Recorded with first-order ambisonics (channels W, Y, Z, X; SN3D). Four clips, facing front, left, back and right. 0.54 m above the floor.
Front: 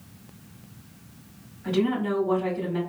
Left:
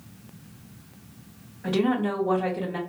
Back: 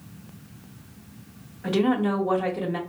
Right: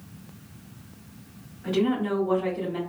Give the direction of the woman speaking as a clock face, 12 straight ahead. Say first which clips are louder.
Left 1 dB, back 2 dB; 7 o'clock.